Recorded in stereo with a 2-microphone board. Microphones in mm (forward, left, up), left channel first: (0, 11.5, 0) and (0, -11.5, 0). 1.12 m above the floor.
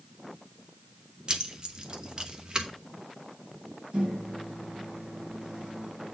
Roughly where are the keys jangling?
Right.